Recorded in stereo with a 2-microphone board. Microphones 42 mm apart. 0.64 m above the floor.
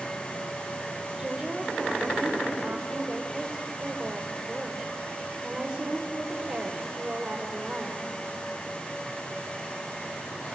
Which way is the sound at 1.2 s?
20° right (ahead or behind).